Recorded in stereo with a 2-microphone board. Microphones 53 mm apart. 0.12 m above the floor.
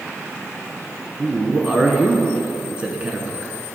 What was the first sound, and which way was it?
A man speaking, 20° right (ahead or behind).